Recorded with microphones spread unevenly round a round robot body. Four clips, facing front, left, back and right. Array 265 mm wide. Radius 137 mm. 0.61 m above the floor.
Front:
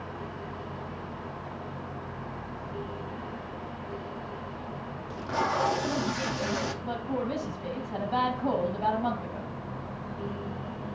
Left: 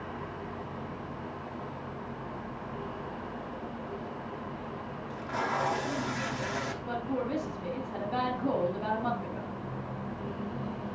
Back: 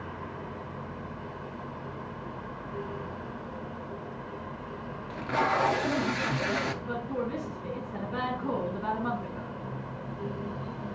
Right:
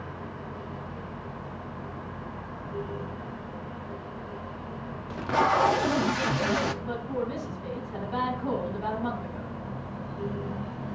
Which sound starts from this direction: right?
Tape being pulled, at 5.1 s.